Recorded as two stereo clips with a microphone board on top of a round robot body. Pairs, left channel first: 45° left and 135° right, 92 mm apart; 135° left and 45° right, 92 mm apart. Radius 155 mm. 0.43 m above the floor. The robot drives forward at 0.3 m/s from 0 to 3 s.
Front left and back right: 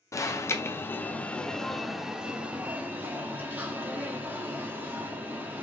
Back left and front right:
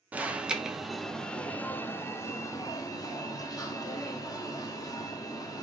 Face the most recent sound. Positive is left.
turn(degrees=165)